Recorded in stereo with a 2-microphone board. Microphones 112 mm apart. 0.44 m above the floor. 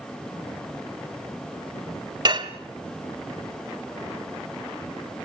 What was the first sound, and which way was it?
Dishes clattering, 40° right (ahead or behind).